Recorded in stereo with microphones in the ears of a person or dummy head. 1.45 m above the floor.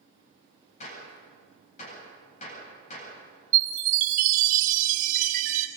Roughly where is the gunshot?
Left.